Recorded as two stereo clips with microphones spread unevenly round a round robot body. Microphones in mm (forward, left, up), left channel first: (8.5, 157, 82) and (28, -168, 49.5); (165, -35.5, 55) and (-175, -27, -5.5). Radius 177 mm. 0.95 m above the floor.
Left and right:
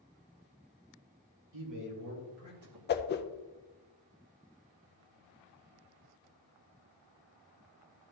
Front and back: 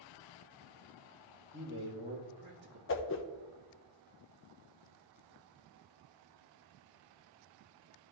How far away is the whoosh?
About 0.8 m.